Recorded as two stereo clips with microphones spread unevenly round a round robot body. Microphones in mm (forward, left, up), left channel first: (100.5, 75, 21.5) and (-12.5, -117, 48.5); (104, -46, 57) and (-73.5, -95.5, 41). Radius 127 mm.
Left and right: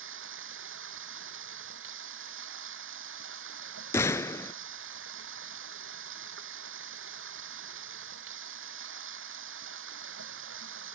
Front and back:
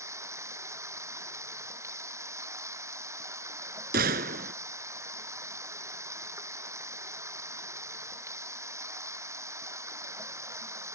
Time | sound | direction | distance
0.0 | running water | 90° right | ?
3.9 | a gunshot | 140° left | ?